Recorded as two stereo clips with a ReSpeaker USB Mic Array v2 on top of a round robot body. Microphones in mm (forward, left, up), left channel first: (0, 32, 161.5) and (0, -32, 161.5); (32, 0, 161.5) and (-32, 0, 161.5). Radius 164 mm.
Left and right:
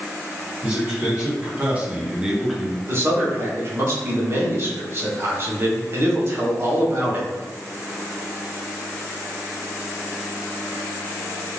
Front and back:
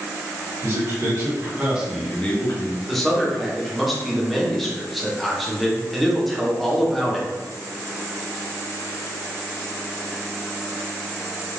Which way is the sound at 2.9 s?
90° right.